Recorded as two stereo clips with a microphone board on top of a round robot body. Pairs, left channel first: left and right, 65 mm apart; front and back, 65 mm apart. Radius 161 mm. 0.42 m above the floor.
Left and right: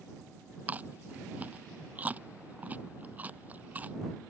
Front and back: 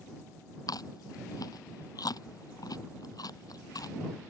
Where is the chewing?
25° right.